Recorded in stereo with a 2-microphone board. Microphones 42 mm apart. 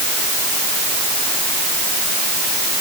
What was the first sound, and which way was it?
Only background noise.